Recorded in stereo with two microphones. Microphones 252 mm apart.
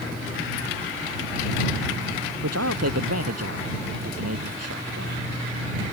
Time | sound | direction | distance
2.4 | a man speaking | 75° right (ahead or behind) | ?